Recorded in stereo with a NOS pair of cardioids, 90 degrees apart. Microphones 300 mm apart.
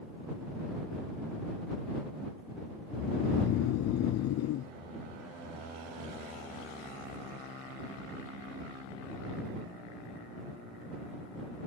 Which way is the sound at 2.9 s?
65° left.